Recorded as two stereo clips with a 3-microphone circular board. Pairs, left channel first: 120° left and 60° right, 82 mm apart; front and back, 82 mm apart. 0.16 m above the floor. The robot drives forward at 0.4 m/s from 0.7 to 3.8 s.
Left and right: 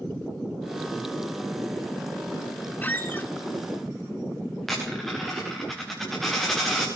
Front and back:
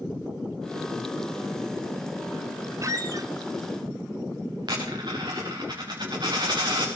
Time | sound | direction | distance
2.8 | a squeak | 175° left | 0.8 m
4.6 | a dropped coin | 150° right | 4.5 m